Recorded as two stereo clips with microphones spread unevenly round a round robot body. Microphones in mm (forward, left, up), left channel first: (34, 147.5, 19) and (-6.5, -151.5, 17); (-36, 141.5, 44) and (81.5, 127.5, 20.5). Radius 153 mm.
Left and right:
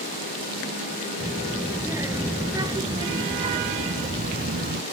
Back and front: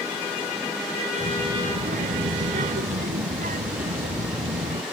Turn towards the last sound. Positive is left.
turn(degrees=-40)